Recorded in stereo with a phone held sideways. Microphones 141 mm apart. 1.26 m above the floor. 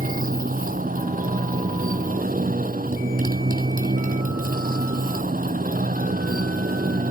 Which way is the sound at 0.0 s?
80° right.